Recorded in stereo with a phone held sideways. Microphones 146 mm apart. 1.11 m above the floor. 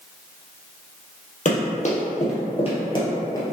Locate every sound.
1.4 s running footsteps: 55° left (ahead or behind), 1.9 m; by 3.5 s 20° left (ahead or behind), 1.3 m